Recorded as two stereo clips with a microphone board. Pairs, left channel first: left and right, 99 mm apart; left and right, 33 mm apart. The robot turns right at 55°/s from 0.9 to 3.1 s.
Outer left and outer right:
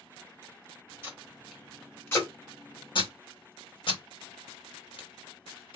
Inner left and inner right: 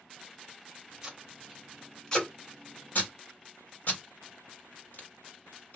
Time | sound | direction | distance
1.0 | tape being pulled | 20° right (ahead or behind) | 2 m